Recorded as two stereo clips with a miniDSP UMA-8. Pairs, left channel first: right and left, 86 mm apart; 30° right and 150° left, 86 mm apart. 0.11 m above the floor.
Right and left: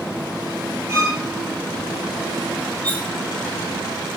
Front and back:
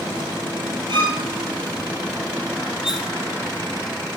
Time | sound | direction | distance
0.9 | a violin | 145° left | 2 m
2.8 | cutlery clinking | 135° right | 1.0 m